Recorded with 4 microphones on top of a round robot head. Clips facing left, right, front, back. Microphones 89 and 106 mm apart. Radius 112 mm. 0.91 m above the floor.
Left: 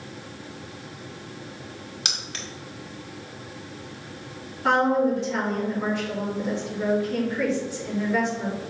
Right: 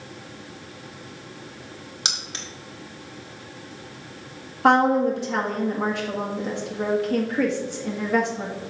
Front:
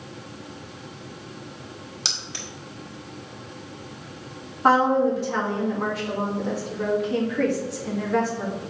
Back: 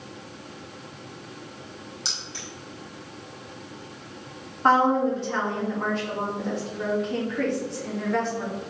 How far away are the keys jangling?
About 1.6 m.